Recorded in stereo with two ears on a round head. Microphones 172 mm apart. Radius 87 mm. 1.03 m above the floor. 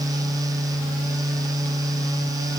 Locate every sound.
Only background noise.